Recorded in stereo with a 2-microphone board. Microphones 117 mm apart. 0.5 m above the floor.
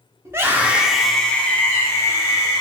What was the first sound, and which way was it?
A scream, 25° right (ahead or behind).